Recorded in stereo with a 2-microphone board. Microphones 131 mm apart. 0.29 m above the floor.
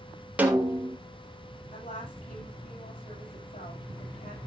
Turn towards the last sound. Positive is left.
turn(degrees=80)